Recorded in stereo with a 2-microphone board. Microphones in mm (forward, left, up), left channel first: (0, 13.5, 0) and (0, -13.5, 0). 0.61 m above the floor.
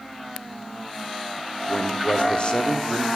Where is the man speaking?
35° left (ahead or behind), 0.6 m.